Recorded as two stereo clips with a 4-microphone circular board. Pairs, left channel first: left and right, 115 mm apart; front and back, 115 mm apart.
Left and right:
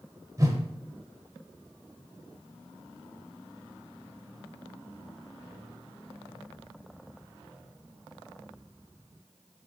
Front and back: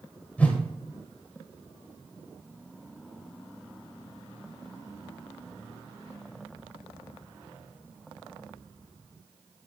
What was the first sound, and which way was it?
A whoosh, 65° right.